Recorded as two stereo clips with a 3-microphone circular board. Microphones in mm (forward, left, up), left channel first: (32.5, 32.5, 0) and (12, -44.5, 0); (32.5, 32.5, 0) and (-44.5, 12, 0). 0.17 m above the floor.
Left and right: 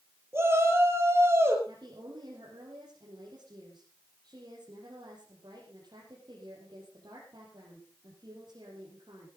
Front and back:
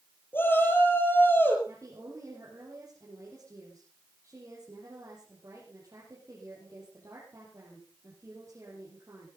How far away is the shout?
About 4.5 m.